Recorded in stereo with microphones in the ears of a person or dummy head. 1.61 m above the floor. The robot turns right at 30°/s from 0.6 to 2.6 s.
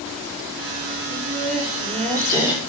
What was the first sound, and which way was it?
Laughter, 55° right.